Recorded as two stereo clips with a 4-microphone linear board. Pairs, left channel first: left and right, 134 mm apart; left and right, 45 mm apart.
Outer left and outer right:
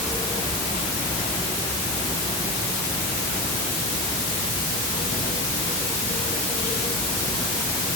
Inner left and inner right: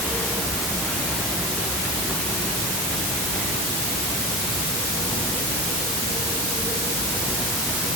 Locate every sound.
Only background noise.